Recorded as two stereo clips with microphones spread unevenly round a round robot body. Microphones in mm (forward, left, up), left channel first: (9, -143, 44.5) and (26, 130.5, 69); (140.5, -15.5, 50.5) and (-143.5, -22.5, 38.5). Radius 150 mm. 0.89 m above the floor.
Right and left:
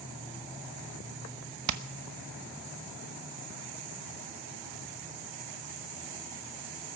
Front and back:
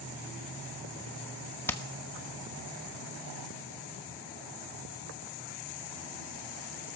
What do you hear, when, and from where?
1.7 s hammering: 85° left, 1.1 m